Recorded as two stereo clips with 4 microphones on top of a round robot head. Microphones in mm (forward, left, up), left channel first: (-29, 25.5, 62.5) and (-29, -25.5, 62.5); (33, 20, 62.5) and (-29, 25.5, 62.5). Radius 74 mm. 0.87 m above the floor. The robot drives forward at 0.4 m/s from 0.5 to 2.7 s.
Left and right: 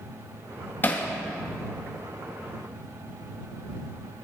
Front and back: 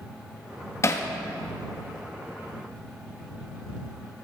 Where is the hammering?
35° left, 1.5 m; by 1.1 s 40° left, 1.4 m.